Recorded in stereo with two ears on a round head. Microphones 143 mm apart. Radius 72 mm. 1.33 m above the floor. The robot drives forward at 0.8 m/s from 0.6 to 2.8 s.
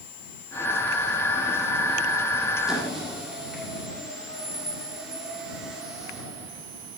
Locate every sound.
2.7 s a squeak: 5° right (ahead or behind), 1.9 m